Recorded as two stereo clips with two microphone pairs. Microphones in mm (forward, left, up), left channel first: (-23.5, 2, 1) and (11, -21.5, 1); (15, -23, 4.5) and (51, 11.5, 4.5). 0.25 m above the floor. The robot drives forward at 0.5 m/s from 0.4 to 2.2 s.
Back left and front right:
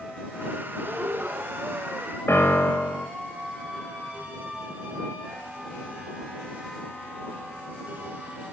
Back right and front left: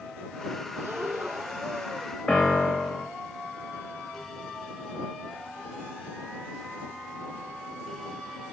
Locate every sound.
0.8 s breathing: 5° right, 3.5 m
2.3 s a piano: 155° left, 3 m